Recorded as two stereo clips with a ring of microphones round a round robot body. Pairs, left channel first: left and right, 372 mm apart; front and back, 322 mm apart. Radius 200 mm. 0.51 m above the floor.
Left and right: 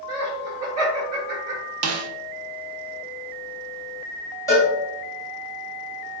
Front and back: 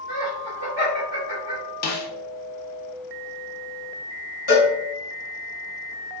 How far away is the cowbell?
About 1.7 m.